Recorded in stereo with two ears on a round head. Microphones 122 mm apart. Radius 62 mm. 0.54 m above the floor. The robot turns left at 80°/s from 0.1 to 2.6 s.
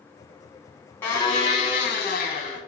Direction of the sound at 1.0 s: 170° left.